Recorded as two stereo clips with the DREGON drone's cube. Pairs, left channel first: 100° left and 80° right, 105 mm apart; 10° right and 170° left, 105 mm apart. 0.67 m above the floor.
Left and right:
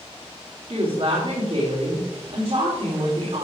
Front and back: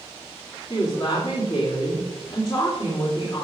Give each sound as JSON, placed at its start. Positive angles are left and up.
{"t": 0.7, "sound": "a woman speaking", "azimuth_deg": -50, "distance_m": 2.5}